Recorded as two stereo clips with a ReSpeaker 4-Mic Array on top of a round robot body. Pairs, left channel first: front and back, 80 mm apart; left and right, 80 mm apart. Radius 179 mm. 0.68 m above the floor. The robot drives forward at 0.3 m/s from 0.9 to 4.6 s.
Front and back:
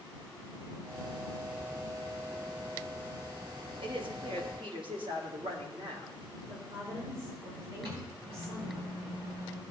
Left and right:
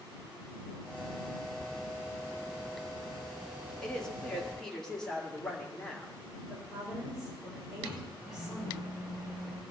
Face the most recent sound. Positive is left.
turn(degrees=-165)